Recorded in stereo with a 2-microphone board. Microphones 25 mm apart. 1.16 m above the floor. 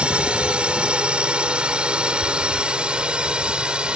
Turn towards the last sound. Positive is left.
turn(degrees=-40)  # may be behind; listen again after turning